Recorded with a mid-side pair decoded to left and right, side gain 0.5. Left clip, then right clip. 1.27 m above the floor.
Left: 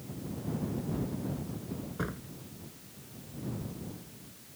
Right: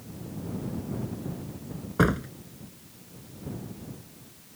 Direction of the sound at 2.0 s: 65° right.